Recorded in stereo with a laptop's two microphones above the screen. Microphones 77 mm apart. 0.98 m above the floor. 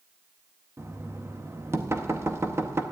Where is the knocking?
35° right (ahead or behind), 0.8 m.